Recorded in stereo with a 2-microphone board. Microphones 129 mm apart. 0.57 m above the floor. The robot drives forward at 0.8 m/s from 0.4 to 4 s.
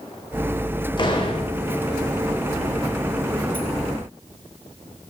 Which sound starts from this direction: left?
A door slam, at 1.0 s.